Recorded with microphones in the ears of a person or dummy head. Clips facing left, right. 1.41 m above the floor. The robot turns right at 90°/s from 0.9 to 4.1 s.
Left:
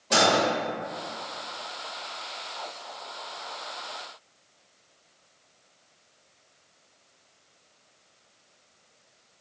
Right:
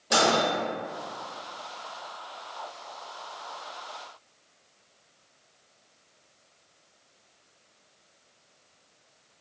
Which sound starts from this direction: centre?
A microwave, at 0.1 s.